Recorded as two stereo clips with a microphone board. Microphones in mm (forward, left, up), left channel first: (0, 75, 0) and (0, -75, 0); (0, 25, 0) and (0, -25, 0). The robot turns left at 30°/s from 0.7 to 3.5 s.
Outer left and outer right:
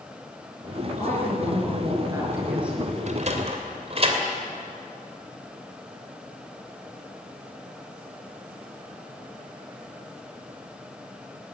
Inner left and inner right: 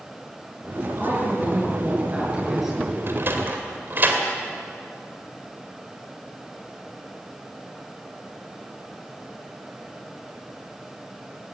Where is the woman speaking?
120° right, 7.5 m; by 3.0 s straight behind, 7.5 m.